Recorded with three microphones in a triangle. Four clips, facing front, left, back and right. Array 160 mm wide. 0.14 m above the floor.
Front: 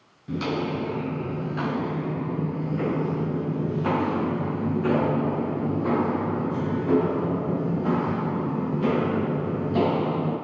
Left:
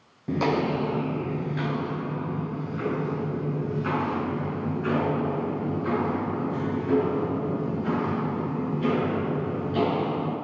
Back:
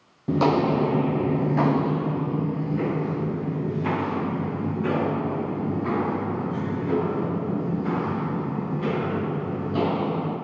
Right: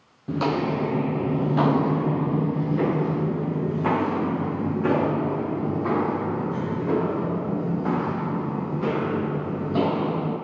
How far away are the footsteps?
About 1.0 m.